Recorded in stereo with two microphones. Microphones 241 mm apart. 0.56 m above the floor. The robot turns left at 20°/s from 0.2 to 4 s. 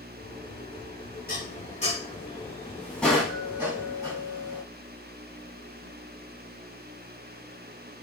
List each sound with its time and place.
1.3 s dishes clattering: 40° left (ahead or behind), 3.5 m; by 4.6 s 15° right (ahead or behind), 3.5 m